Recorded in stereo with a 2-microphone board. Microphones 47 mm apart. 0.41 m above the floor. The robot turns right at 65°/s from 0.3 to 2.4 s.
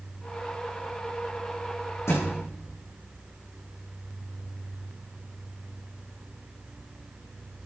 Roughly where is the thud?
Left.